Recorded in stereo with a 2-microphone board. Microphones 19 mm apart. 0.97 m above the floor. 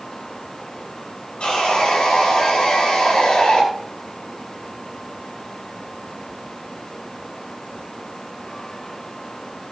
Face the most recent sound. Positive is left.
turn(degrees=70)  # may be behind; listen again after turning